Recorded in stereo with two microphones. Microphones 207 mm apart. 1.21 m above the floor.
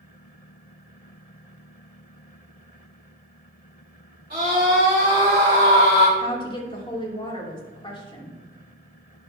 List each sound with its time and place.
4.3 s a scream: 50° right (ahead or behind), 3.5 m; by 6.1 s 75° right (ahead or behind), 3.5 m
6.2 s a woman speaking: 25° left (ahead or behind), 2.5 m